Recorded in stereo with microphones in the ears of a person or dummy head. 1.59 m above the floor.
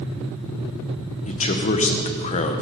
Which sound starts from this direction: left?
A man speaking, at 1.3 s.